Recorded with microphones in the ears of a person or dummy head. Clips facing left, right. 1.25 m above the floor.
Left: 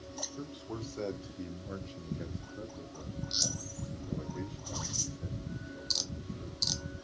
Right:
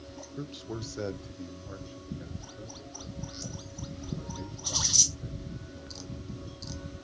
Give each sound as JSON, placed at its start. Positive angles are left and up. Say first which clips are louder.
{"t": 0.4, "sound": "a man speaking", "louder": "right 4 dB", "side_deg": -30, "distance_m": 0.8}